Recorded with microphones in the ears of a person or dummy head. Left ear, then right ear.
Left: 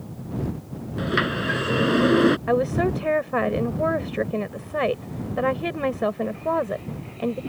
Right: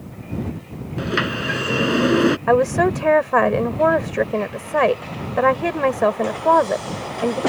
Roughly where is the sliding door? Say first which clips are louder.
Right 2 dB; centre.